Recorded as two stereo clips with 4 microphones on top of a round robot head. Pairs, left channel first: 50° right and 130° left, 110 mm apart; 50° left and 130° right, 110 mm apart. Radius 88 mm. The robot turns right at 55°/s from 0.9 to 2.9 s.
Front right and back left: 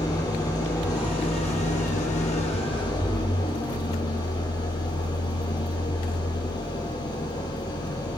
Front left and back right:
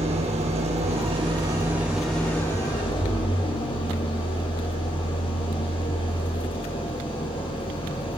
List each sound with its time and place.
0.0 s an engine running: 105° right, 8 m; by 8.2 s 5° left, 8 m